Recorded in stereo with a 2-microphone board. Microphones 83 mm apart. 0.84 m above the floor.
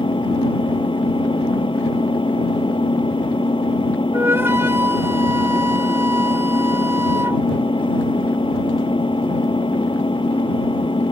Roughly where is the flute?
Right.